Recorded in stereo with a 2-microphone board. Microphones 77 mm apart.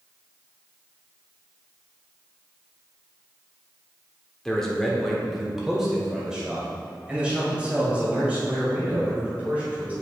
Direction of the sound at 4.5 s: 5° left (ahead or behind).